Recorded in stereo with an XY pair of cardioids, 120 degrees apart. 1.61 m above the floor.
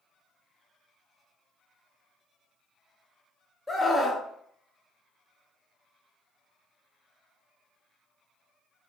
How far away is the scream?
About 0.9 m.